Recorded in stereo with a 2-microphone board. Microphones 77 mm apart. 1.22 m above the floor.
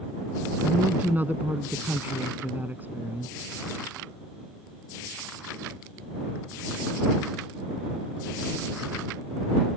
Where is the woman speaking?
20° right (ahead or behind).